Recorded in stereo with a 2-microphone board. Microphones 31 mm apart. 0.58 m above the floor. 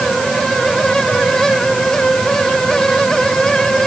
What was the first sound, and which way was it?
Only background noise.